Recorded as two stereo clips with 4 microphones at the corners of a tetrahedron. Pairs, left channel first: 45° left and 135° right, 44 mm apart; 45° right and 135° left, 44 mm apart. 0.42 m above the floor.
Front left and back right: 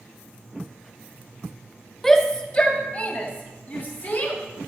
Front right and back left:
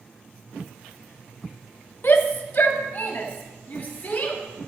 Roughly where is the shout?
Ahead right.